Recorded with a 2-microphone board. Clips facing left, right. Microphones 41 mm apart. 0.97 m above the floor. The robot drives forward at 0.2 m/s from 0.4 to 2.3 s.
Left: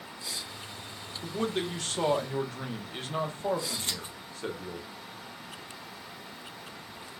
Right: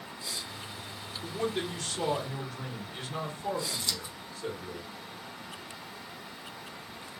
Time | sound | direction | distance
1.2 | a man speaking | 40° left (ahead or behind) | 0.9 m
3.8 | scissors | 35° left (ahead or behind) | 0.5 m